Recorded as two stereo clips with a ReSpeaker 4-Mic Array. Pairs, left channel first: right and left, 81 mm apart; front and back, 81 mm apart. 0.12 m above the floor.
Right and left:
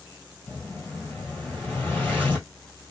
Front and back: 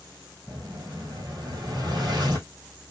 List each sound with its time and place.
0.5 s an explosion: 155° right, 1.6 m